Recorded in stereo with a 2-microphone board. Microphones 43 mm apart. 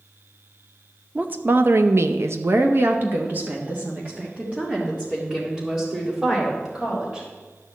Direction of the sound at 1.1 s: 40° right (ahead or behind).